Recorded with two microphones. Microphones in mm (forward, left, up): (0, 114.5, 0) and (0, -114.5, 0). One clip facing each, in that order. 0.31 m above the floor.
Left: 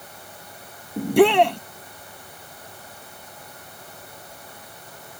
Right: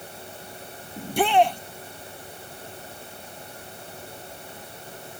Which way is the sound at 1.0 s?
70° left (ahead or behind).